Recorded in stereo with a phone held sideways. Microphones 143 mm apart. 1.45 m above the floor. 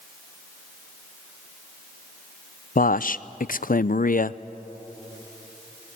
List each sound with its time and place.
2.8 s a man speaking: 75° left (ahead or behind), 0.5 m